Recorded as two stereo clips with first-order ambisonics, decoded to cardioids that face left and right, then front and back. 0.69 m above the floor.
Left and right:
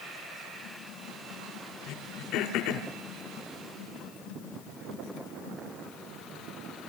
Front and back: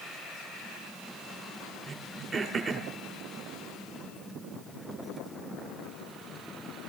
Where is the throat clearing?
105° left, 2.5 m.